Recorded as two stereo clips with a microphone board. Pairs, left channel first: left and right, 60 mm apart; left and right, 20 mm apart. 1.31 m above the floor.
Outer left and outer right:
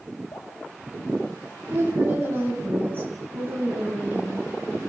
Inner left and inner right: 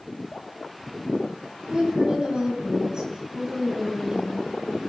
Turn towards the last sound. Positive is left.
turn(degrees=-35)  # may be behind; listen again after turning